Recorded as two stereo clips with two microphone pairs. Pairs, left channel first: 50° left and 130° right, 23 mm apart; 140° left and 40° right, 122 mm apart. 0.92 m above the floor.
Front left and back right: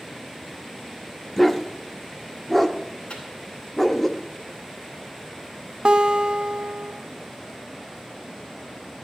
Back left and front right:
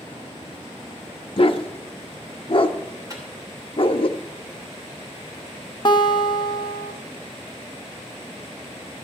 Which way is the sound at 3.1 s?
20° left.